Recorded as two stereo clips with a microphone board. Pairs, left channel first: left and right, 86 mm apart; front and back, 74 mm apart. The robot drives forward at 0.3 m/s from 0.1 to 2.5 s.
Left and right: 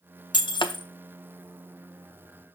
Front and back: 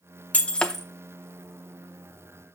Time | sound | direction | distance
0.3 | breaking glass | 70° left | 0.5 m